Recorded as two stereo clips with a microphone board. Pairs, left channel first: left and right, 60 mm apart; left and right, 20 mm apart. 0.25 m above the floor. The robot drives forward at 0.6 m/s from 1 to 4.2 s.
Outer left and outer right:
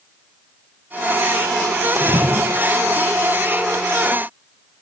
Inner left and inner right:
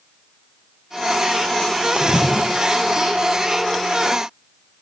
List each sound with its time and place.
1.9 s a splash: 60° right (ahead or behind), 2.0 m; by 3.0 s 50° right (ahead or behind), 2.5 m